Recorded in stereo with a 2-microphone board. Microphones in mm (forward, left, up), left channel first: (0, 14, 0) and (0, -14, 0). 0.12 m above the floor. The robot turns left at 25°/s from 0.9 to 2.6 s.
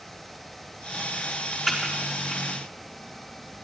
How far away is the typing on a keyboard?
About 4 m.